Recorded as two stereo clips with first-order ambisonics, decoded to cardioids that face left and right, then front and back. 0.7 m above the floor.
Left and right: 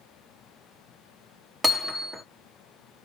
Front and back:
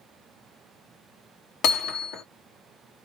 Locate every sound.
1.6 s hammering: 10° right, 1.3 m